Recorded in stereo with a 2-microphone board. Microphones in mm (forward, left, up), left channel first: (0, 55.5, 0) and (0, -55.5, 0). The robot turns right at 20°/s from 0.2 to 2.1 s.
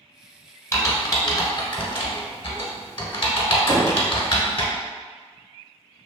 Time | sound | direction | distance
0.7 | typing on a keyboard | 25° left (ahead or behind) | 0.8 m
3.7 | knocking | 35° right (ahead or behind) | 1.6 m